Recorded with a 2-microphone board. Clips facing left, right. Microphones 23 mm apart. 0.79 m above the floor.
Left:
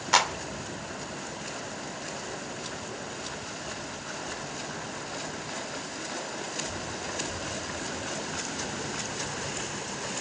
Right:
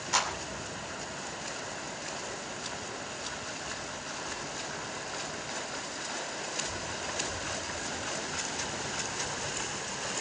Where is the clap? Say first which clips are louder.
Left 6 dB; 30° left (ahead or behind), 2.5 m.